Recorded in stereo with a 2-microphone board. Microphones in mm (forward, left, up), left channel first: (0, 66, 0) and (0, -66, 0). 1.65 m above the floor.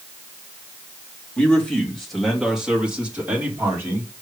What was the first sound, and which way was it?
A man speaking, 10° left (ahead or behind).